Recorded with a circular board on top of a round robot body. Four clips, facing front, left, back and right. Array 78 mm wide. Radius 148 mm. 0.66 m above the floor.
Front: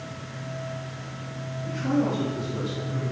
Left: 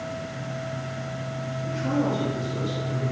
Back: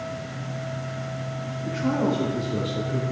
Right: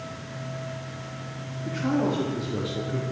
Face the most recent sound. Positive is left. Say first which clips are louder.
# right 1 dB, back 1 dB
turn(degrees=-135)